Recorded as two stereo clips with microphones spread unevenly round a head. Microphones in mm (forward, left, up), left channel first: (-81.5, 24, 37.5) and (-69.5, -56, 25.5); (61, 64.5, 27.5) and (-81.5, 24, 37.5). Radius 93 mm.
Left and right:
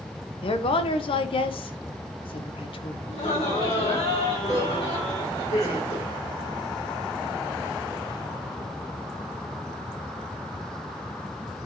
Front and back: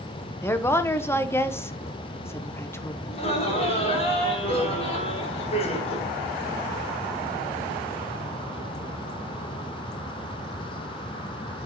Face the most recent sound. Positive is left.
turn(degrees=65)